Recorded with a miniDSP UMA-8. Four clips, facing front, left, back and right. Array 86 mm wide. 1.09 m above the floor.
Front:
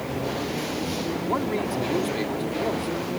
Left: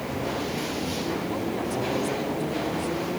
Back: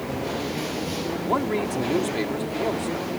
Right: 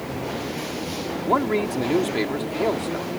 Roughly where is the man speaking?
Right.